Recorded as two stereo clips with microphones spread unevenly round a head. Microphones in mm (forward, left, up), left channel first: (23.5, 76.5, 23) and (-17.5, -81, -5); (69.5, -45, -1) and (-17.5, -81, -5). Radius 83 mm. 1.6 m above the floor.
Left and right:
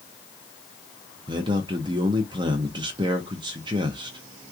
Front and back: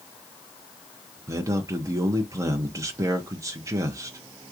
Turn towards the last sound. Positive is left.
turn(degrees=-160)